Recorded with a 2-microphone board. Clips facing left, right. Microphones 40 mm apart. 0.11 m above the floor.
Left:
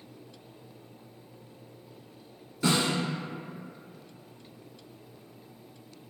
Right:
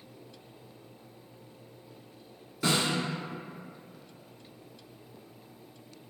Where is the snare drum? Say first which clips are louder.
Left 2 dB; 10° right (ahead or behind), 1.4 m.